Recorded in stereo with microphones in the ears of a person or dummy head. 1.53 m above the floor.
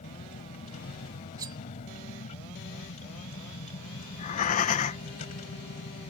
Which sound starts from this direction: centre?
Cutlery clinking, at 1.4 s.